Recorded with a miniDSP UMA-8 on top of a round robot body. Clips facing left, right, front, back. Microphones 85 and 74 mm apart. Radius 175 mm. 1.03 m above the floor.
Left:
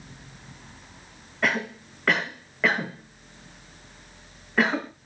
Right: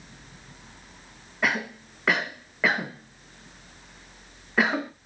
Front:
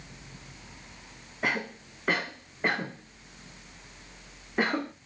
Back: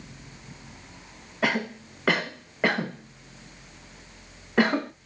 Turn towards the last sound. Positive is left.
turn(degrees=-175)